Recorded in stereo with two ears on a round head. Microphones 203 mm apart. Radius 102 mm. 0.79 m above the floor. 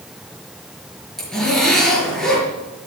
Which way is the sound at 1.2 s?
Centre (ahead or behind).